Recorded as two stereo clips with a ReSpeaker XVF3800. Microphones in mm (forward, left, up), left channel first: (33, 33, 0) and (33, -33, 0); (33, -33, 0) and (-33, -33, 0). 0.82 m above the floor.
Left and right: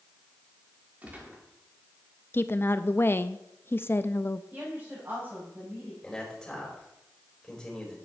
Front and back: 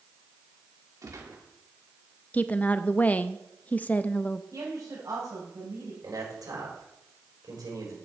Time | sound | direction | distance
1.0 | a gunshot | 155° right | 2 m
2.3 | a woman speaking | 55° left | 0.5 m
4.5 | a woman speaking | 145° right | 4 m
6.0 | a man speaking | 170° left | 4.5 m